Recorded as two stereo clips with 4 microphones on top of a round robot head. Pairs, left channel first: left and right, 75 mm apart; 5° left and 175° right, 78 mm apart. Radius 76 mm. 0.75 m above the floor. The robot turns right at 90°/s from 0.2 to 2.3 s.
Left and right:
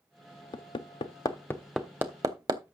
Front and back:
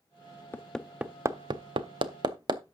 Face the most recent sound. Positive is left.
turn(degrees=-135)